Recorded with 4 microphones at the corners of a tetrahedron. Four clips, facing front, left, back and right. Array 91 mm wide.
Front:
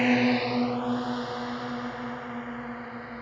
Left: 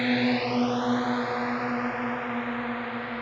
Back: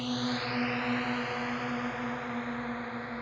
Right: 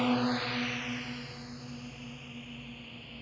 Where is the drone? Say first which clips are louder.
Left 5 dB, front 10 dB; 10° left; by 3.2 s 95° left.